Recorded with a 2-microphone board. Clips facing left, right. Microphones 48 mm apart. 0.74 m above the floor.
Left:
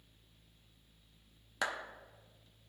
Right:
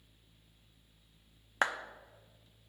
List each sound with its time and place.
1.6 s a clap: 40° right (ahead or behind), 0.7 m